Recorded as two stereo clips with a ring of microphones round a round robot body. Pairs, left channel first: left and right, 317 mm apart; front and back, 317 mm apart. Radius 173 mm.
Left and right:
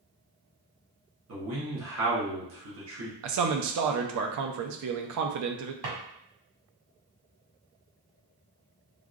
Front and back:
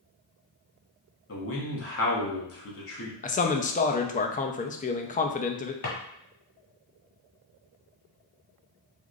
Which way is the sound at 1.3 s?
40° right.